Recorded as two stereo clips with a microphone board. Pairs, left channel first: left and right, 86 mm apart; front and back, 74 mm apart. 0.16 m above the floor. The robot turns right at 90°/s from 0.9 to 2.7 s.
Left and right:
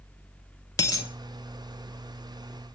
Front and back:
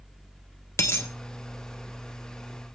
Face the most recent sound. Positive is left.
turn(degrees=-145)